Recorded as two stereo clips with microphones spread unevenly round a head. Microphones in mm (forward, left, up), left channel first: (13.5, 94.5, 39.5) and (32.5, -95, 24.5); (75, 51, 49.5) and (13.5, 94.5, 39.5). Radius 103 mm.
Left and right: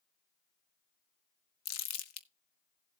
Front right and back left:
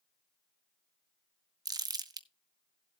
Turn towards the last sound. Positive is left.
turn(degrees=105)